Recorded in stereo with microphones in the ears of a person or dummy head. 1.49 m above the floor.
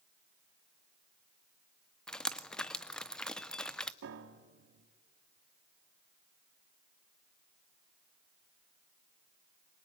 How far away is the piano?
About 1.6 m.